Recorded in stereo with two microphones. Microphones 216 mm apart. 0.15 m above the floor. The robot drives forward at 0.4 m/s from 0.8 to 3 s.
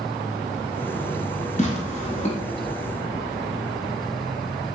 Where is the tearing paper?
35° left (ahead or behind), 1.0 m; by 2.4 s 30° left (ahead or behind), 1.2 m.